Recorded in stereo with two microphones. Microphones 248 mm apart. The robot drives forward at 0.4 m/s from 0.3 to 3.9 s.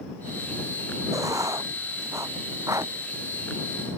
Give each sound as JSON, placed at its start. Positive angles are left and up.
{"t": 1.1, "sound": "writing", "side_deg": -15}